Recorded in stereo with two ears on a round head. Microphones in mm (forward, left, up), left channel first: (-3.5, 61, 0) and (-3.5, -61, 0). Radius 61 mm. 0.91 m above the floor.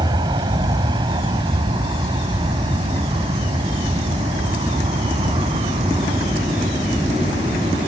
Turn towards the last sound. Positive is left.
turn(degrees=-40)  # may be behind; listen again after turning